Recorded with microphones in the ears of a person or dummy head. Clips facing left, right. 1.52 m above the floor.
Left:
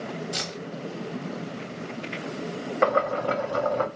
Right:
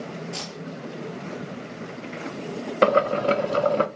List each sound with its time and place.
0.3 s keys jangling: 15° left (ahead or behind), 1.0 m
2.8 s boiling: 45° right (ahead or behind), 0.5 m